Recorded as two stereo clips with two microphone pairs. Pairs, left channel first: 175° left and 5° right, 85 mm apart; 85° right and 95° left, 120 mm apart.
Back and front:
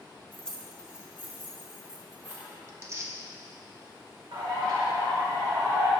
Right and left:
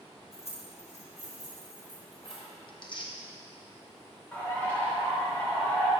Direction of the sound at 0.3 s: 110° right.